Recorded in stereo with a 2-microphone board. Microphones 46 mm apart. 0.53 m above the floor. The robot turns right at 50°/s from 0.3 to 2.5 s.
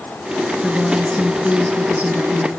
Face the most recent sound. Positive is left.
turn(degrees=70)